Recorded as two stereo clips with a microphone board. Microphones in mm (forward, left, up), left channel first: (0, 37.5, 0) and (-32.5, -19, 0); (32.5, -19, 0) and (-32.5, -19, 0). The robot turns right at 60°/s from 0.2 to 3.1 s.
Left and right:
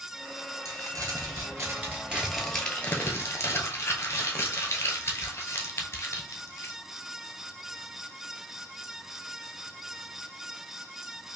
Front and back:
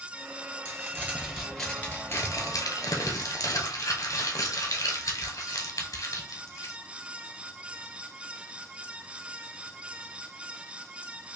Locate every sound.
0.7 s crumpling: 135° right, 1.0 m; by 6.7 s 10° left, 1.0 m